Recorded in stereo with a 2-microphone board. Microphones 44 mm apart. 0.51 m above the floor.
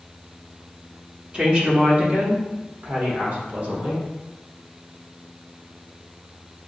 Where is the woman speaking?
30° right (ahead or behind), 1.3 m; by 4.0 s 45° right (ahead or behind), 1.9 m.